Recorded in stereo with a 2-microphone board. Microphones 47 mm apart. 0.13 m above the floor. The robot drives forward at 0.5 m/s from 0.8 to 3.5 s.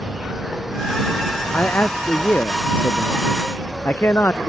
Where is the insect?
5° right (ahead or behind).